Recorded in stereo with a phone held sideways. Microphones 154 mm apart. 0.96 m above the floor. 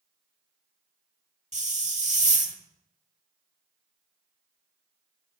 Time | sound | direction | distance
1.5 | a hiss | 50° right (ahead or behind) | 1.1 m